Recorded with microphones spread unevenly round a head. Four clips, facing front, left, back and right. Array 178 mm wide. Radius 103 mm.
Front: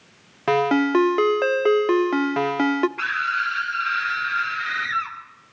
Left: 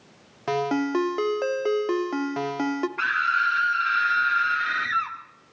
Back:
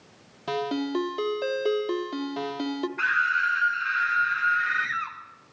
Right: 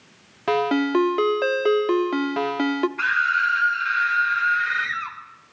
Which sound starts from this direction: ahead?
A ringtone, at 0.5 s.